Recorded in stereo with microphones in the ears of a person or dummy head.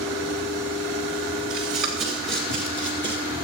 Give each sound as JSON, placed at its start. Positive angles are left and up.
{"t": 1.5, "sound": "running footsteps", "side_deg": -15, "distance_m": 1.6}